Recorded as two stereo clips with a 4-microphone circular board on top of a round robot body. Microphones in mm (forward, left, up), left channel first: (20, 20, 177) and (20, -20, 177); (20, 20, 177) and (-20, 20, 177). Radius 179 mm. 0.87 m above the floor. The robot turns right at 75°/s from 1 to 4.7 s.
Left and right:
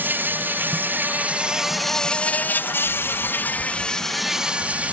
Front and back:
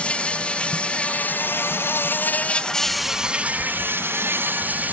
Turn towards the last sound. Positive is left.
turn(degrees=-140)